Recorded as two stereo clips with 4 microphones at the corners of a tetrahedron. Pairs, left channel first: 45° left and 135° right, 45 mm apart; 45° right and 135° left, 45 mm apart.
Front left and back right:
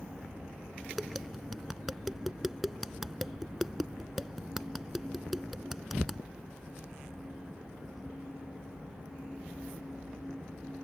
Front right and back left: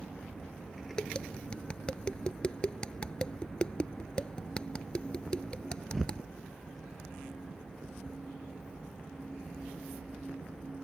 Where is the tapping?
55° right.